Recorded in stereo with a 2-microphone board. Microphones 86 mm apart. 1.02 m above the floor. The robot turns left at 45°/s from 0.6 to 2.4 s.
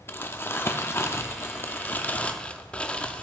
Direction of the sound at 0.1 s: 25° left (ahead or behind).